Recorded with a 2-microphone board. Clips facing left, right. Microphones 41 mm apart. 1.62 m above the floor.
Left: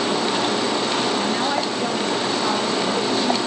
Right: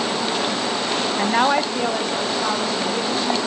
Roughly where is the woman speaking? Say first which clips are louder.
Right 3 dB; right.